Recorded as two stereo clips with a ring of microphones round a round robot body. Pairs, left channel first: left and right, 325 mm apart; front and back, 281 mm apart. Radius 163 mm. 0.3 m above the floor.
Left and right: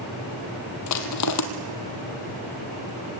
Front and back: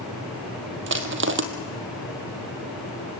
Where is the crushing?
130° left, 2 m.